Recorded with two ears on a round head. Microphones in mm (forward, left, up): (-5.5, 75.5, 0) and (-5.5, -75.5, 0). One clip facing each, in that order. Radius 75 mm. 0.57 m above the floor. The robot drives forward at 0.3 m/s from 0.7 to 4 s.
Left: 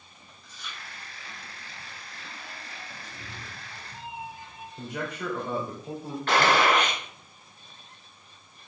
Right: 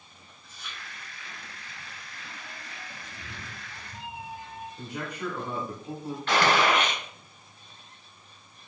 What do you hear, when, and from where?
0.4 s chewing: 65° left (ahead or behind), 3.5 m
3.0 s a cat meowing: 20° left (ahead or behind), 2.5 m
4.8 s a man speaking: 60° left (ahead or behind), 2.5 m
6.3 s a gunshot: 40° left (ahead or behind), 2 m